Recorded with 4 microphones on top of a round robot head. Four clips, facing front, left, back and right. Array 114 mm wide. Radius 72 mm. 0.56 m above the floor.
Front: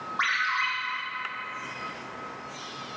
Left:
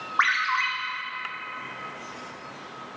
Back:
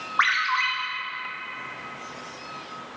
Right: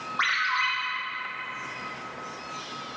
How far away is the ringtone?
About 1.0 m.